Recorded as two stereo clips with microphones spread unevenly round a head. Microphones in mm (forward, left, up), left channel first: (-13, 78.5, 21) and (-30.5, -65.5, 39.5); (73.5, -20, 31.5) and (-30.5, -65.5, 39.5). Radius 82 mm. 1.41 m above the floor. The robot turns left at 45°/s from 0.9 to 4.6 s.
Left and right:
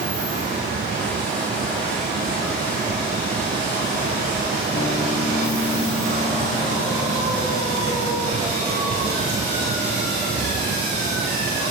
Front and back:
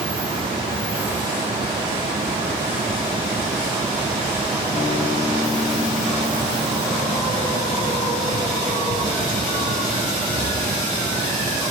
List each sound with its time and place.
4.7 s a guitar: 65° left, 6 m